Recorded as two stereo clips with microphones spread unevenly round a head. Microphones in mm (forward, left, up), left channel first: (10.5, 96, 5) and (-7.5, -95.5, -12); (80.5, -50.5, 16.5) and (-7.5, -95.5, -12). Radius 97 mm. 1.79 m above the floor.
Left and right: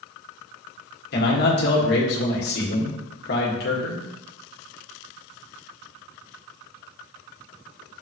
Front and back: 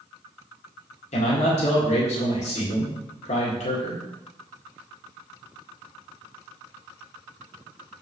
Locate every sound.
1.1 s a man speaking: 45° left, 1.9 m